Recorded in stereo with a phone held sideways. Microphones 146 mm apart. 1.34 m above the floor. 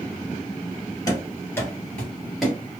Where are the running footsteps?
25° left (ahead or behind), 2.0 m; by 2.8 s 10° right (ahead or behind), 1.8 m.